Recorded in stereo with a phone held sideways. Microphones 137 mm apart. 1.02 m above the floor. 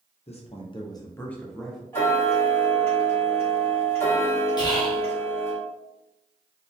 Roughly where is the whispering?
Left.